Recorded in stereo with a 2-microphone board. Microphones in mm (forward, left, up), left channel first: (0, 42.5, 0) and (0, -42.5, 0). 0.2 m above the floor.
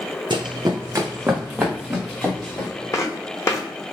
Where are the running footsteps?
65° right (ahead or behind), 0.5 m; by 2.7 s 5° left (ahead or behind), 1.3 m.